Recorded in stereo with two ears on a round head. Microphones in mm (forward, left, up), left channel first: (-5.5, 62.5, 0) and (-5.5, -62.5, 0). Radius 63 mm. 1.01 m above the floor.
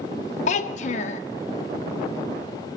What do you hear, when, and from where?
0.5 s a child speaking: 55° left (ahead or behind), 0.8 m